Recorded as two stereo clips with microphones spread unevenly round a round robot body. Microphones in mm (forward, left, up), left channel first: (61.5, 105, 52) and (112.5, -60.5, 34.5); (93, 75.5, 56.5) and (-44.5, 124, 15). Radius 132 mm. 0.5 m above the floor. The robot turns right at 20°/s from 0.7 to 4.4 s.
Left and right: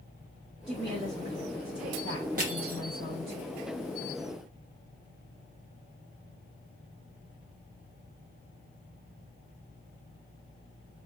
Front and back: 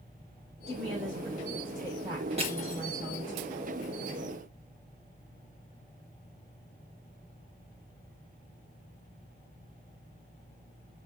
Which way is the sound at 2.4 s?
135° right.